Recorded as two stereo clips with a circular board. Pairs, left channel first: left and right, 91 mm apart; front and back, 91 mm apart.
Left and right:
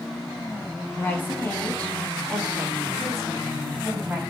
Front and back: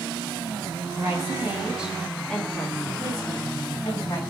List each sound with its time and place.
1.0 s a woman speaking: 140° left, 1.1 m; by 4.2 s 15° right, 1.3 m